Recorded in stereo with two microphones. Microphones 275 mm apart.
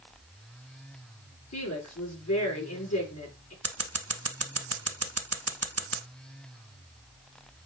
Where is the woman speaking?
75° left (ahead or behind), 5 m.